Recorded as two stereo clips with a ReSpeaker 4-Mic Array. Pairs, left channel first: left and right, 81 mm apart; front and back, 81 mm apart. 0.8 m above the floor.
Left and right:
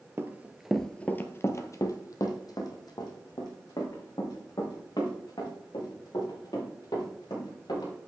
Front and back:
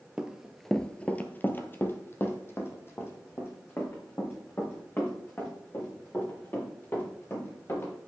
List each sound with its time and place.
0.2 s running footsteps: 110° right, 0.9 m; by 7.9 s 60° left, 6.5 m